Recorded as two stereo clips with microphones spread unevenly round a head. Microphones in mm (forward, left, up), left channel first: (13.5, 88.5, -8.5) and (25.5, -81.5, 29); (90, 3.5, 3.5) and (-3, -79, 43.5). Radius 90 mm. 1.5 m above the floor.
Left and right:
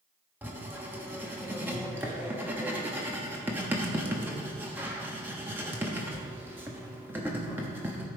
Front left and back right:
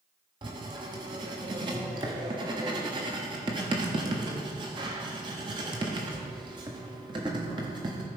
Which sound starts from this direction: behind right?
Writing, at 0.4 s.